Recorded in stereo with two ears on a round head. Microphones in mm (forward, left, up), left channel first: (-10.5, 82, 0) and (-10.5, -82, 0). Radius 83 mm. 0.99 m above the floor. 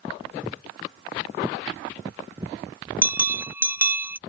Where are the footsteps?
5° right (ahead or behind); by 2.6 s 20° right (ahead or behind).